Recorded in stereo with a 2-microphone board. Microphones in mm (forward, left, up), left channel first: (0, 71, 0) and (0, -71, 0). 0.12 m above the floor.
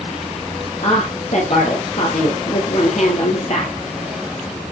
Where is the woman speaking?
60° left (ahead or behind), 3 m.